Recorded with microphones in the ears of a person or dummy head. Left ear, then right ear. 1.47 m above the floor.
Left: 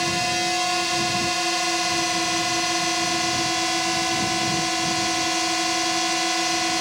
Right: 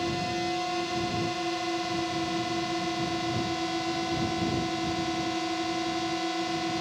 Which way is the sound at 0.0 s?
60° left (ahead or behind).